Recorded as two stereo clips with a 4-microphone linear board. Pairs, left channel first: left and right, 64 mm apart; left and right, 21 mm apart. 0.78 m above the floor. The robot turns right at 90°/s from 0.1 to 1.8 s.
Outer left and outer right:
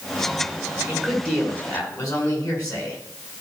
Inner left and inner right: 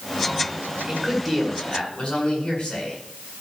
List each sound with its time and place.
0.9 s a man speaking: 15° right, 6.5 m; by 3.4 s 70° left, 6.5 m